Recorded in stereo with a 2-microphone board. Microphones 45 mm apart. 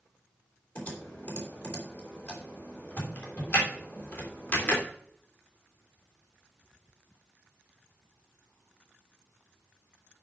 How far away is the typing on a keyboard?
About 3 m.